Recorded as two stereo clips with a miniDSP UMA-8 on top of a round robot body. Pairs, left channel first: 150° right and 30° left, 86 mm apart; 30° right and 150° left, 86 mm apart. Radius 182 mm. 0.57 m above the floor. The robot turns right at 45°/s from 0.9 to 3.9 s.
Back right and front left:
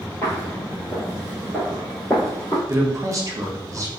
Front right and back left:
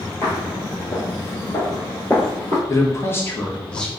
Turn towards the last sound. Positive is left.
turn(degrees=50)